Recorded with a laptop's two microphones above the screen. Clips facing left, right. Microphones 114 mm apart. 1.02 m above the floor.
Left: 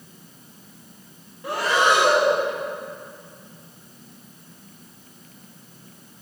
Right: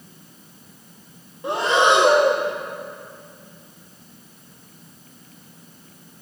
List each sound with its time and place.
1.4 s breathing: 20° right (ahead or behind), 0.7 m